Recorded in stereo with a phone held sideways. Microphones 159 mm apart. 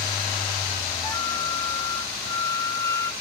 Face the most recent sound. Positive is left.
turn(degrees=20)  # may be behind; listen again after turning